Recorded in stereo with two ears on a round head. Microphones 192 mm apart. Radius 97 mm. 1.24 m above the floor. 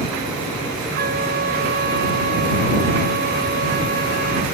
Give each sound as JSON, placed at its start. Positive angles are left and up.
{"t": 0.9, "sound": "a flute", "side_deg": -45}